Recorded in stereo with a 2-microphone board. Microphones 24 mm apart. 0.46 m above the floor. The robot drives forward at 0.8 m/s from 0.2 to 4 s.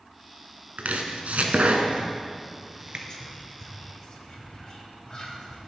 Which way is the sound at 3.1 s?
30° left (ahead or behind).